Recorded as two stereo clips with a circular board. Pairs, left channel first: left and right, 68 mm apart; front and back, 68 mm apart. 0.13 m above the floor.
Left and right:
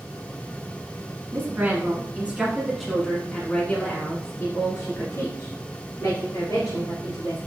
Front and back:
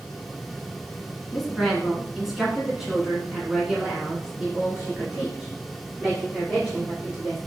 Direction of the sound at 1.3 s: 90° right.